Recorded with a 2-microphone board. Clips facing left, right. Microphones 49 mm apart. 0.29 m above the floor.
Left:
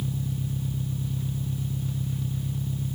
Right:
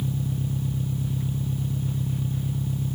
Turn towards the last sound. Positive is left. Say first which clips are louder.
# right 3 dB
turn(degrees=-15)  # may be behind; listen again after turning